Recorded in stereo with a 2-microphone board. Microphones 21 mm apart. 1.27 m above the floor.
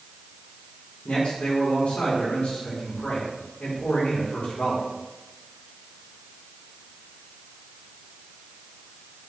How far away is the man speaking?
About 4 m.